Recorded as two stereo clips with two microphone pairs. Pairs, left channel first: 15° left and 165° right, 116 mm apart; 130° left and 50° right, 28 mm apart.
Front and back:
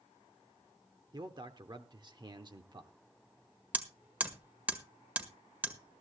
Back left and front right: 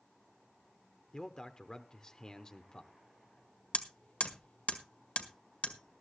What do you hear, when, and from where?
1.1 s a man speaking: straight behind, 0.9 m
3.7 s hammering: 120° left, 1.6 m